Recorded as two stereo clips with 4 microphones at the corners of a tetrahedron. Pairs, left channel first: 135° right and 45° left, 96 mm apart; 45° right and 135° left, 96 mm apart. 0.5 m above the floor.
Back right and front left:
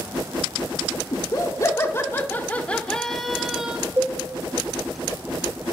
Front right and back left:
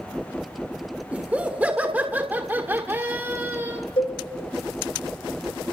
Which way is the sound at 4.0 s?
20° right.